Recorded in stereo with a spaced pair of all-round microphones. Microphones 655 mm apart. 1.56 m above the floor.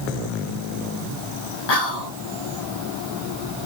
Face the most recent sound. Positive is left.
turn(degrees=70)  # may be behind; listen again after turning